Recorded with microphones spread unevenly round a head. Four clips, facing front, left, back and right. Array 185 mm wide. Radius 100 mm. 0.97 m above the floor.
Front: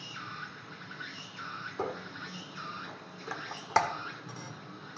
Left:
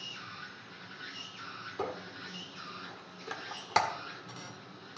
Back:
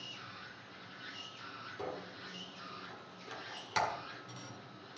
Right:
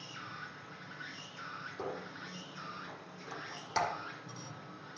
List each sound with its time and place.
0.0 s an insect: 5° right, 1.9 m
1.8 s a squeak: 30° left, 1.6 m